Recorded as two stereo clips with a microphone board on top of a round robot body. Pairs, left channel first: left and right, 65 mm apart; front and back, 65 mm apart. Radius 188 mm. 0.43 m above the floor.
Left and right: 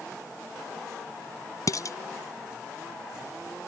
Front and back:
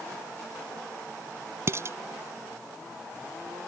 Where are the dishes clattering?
130° left.